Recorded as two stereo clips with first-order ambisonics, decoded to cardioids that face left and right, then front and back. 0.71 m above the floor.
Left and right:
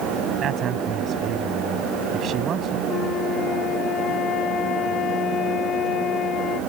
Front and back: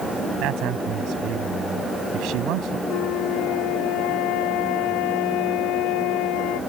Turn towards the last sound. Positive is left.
turn(degrees=30)